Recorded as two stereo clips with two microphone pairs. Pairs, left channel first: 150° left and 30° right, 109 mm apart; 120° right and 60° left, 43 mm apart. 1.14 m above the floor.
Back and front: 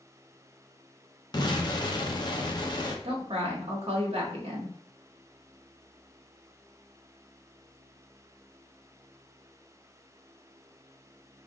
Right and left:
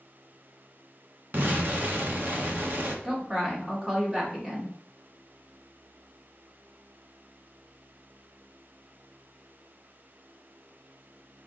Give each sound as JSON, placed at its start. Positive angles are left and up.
{"t": 1.3, "sound": "an explosion", "azimuth_deg": 100, "distance_m": 0.9}
{"t": 3.0, "sound": "a woman speaking", "azimuth_deg": -10, "distance_m": 1.7}